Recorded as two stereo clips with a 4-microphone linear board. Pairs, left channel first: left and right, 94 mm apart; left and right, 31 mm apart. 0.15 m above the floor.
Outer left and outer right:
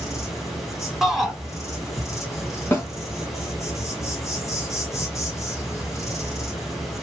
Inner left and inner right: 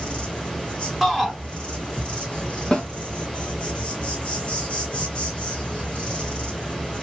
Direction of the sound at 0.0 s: 35° left (ahead or behind).